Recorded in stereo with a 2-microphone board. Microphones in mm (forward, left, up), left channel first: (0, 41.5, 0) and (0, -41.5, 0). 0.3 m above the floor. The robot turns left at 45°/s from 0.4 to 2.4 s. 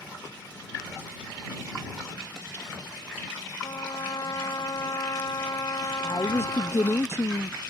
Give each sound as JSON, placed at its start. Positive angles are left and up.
{"t": 3.6, "sound": "a trumpet", "side_deg": 50}
{"t": 6.0, "sound": "a woman speaking", "side_deg": 35}